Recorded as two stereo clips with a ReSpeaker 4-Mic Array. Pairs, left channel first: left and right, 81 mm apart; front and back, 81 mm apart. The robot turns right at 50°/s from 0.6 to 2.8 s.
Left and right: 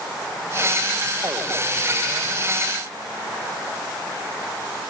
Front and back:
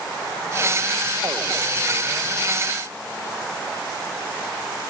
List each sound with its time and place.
Only background noise.